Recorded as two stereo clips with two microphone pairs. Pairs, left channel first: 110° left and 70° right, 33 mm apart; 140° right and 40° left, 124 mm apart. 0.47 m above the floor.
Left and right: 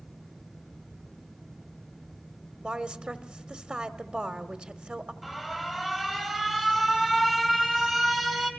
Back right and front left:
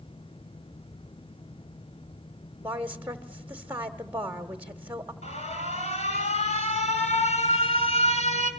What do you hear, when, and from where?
2.6 s a woman speaking: 35° right, 1.2 m
5.2 s an alarm: 155° right, 2.5 m